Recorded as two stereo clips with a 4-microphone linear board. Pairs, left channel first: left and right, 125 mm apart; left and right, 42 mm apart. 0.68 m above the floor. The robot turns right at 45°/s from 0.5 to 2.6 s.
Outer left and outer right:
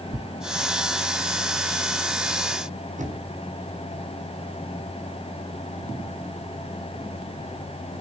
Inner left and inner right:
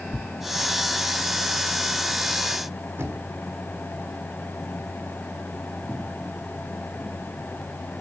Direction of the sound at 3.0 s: 80° right.